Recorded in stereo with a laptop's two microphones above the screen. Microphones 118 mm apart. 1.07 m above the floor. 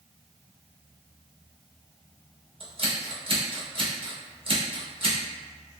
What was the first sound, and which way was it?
Scissors, 50° right (ahead or behind).